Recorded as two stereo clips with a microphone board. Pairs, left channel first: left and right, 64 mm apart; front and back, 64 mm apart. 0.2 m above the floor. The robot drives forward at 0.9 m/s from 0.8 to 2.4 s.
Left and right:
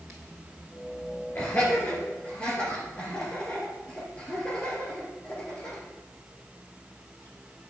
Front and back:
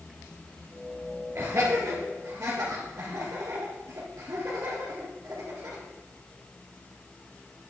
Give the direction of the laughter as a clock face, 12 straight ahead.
7 o'clock.